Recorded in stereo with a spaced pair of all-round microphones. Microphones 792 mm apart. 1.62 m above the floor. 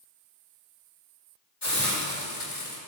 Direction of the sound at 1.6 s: 35° left (ahead or behind).